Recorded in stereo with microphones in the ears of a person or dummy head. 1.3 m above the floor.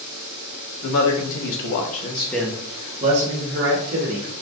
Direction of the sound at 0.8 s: 75° left (ahead or behind).